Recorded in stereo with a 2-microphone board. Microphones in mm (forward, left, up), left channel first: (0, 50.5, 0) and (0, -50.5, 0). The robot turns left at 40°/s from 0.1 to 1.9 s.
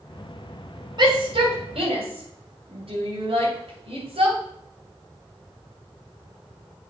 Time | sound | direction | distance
1.0 | a shout | 50° right (ahead or behind) | 2.5 m